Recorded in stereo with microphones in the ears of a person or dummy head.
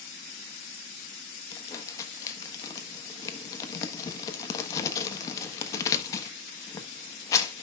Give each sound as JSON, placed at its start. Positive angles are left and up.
{"t": 1.5, "sound": "crumpling", "side_deg": 25, "distance_m": 1.3}